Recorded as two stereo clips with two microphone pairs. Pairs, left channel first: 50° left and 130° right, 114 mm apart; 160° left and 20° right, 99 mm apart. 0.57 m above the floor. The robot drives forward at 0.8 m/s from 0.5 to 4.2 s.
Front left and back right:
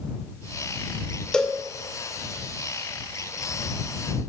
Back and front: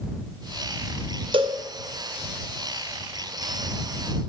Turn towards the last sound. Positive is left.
turn(degrees=-145)